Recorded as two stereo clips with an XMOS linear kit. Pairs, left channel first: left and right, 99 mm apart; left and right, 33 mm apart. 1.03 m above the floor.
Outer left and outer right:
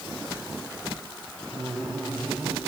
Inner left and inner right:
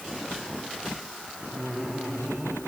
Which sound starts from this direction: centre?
Laughter, at 1.5 s.